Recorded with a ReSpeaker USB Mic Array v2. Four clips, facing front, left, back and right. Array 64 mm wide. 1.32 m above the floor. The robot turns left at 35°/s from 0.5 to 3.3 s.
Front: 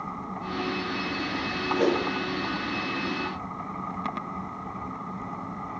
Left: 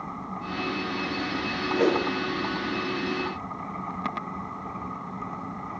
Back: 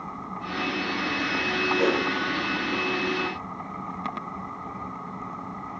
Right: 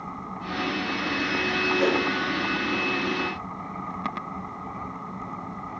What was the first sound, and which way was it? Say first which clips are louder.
A whoosh: left 2 dB, front 1 dB; 80° left.